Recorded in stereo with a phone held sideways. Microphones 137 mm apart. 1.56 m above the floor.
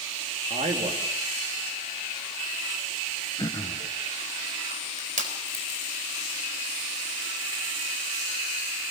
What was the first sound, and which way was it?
A man speaking, 60° right (ahead or behind).